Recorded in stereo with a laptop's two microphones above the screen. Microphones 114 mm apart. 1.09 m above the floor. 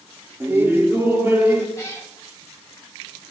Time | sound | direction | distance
0.4 | laughter | 20° right (ahead or behind) | 3 m
1.8 | a cat meowing | 30° left (ahead or behind) | 2.5 m